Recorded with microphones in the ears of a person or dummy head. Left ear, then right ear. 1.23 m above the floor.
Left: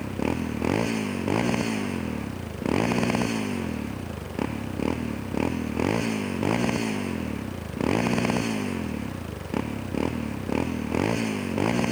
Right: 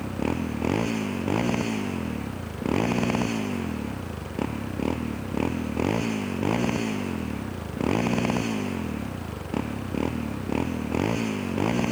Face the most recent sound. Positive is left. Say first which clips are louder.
# even
turn(degrees=10)  # may be behind; listen again after turning